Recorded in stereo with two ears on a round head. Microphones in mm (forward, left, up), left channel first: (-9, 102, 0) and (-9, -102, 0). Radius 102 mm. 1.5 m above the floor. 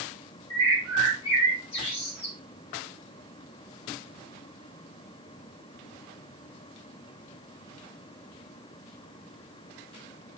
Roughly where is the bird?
Left.